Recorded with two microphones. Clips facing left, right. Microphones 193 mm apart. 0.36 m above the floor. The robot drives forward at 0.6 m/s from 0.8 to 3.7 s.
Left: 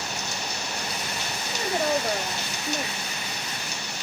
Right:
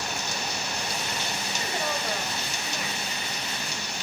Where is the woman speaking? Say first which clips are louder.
Left 8 dB; 45° left (ahead or behind), 1.1 m; by 3.1 s 30° left (ahead or behind), 1.5 m.